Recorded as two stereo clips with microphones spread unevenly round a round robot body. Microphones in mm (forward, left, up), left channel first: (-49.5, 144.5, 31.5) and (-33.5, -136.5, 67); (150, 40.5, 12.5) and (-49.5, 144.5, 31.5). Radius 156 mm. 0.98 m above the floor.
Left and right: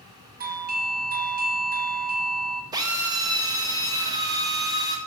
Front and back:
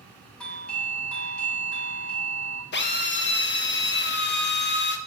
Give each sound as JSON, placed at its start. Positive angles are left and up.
{"t": 0.4, "sound": "a doorbell", "azimuth_deg": -95, "distance_m": 1.0}
{"t": 2.7, "sound": "a drill", "azimuth_deg": -10, "distance_m": 1.1}